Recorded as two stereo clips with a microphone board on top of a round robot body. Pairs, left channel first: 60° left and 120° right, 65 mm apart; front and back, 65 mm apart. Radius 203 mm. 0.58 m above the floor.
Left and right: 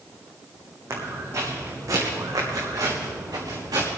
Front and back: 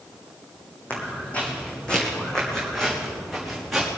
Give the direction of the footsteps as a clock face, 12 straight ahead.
2 o'clock.